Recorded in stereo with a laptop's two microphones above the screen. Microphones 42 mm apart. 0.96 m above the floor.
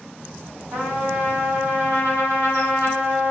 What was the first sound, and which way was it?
A trumpet, 70° right (ahead or behind).